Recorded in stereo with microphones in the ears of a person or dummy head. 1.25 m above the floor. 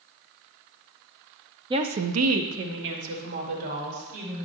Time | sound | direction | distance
1.7 | a woman speaking | 25° right (ahead or behind) | 0.6 m